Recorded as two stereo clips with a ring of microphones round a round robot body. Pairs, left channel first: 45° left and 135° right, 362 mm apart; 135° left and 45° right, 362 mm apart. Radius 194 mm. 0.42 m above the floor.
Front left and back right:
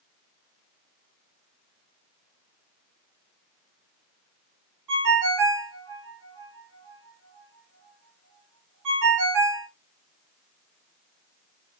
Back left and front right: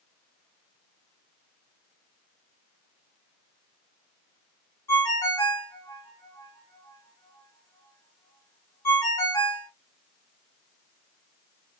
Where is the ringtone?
145° right, 1.2 m.